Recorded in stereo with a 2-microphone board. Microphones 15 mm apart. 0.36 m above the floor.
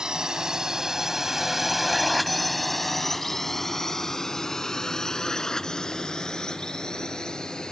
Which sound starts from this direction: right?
A drone, at 0.0 s.